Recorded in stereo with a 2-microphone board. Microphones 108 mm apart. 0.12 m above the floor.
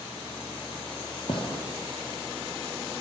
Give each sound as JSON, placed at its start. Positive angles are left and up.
{"t": 1.3, "sound": "a gunshot", "side_deg": 55, "distance_m": 1.3}